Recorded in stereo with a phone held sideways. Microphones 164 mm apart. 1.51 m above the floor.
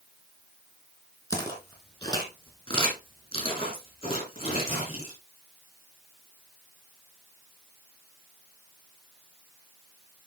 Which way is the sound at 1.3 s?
20° left (ahead or behind).